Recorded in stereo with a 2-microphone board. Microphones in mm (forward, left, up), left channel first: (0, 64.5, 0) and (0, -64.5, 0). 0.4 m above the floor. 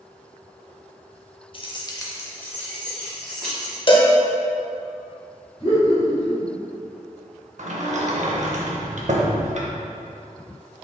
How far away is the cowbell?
About 0.5 m.